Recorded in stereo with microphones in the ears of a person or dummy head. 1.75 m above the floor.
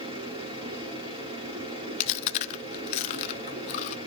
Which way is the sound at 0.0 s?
30° right (ahead or behind).